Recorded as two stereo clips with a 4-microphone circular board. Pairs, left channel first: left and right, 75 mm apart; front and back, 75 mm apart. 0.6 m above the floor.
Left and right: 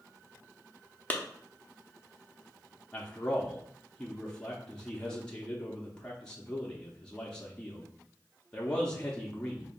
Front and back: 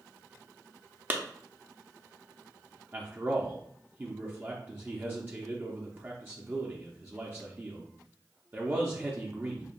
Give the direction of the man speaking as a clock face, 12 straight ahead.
7 o'clock.